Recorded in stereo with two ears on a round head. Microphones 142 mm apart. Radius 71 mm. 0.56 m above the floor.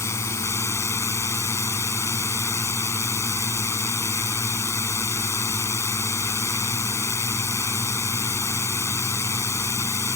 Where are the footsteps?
No footsteps in this recording.